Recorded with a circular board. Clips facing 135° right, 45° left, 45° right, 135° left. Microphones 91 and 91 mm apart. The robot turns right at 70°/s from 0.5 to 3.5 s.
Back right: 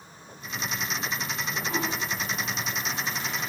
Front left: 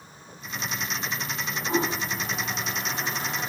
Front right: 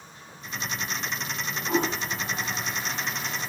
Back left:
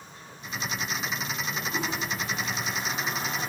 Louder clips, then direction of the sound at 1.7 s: Front left 6 dB, front right 8 dB; 20° right.